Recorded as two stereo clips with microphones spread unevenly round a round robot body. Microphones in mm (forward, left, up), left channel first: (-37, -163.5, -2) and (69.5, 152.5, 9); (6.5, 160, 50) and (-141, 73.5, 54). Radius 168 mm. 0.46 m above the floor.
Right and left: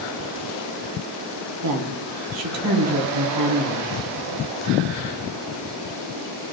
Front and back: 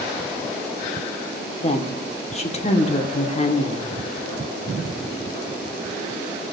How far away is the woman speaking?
About 1.7 m.